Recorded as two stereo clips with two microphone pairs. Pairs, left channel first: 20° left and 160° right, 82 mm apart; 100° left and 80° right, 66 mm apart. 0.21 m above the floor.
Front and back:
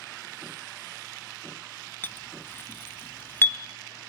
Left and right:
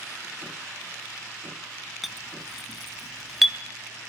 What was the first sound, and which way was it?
A clink, 10° left.